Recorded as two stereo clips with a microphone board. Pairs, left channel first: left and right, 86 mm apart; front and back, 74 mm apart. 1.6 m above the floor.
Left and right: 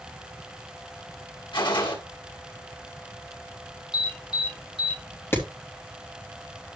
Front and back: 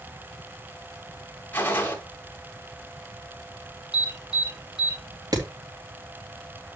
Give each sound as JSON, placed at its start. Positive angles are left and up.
{"t": 1.5, "sound": "a gunshot", "azimuth_deg": 65, "distance_m": 2.0}
{"t": 3.9, "sound": "an alarm", "azimuth_deg": 100, "distance_m": 7.5}
{"t": 5.3, "sound": "hammering", "azimuth_deg": 150, "distance_m": 3.0}